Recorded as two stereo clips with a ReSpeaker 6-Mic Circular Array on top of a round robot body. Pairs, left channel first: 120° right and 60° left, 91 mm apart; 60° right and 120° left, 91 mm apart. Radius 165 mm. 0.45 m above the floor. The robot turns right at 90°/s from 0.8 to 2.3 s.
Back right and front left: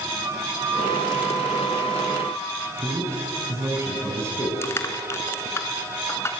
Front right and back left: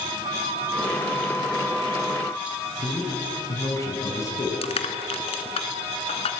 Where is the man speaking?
5° right, 5 m.